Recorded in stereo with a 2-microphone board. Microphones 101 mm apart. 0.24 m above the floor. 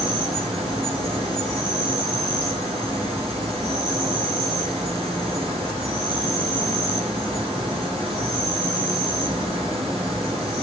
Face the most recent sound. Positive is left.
turn(degrees=-65)  # may be behind; listen again after turning